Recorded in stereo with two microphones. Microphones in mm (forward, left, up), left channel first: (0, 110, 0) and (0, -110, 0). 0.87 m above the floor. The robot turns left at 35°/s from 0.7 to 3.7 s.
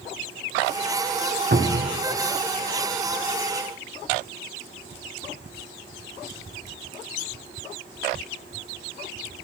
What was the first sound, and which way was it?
A cupboard door, 45° right (ahead or behind).